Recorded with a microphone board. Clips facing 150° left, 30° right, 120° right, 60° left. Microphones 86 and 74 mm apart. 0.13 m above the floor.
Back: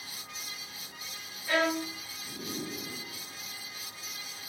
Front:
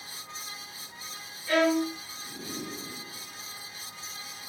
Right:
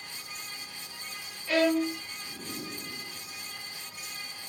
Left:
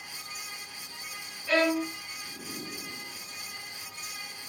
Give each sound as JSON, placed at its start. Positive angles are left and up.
{"t": 1.5, "sound": "a violin", "azimuth_deg": 70, "distance_m": 2.0}